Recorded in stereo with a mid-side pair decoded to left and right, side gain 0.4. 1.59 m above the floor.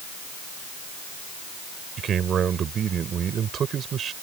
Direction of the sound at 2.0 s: 60° right.